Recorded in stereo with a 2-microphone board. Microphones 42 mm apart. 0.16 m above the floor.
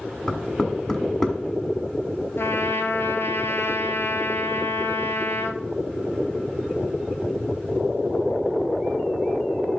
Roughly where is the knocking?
Centre.